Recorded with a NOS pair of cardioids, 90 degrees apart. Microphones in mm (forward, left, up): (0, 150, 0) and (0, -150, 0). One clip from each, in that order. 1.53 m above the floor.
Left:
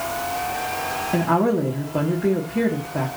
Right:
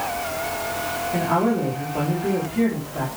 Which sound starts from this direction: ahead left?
A woman speaking, at 1.1 s.